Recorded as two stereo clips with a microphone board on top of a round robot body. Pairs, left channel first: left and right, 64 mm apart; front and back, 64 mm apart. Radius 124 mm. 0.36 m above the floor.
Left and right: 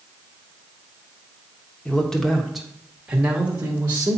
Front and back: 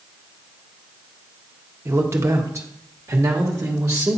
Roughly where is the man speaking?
Behind left.